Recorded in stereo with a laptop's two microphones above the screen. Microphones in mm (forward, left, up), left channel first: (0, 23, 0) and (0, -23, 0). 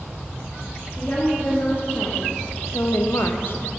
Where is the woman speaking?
45° left (ahead or behind), 1.6 m; by 3.7 s 40° left (ahead or behind), 0.6 m.